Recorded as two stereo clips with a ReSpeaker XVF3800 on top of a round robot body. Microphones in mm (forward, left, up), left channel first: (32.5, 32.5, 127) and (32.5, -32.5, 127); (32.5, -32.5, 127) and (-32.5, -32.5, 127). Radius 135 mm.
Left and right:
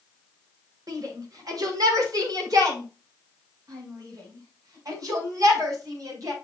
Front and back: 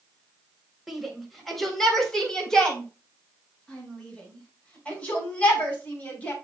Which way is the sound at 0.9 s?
90° right.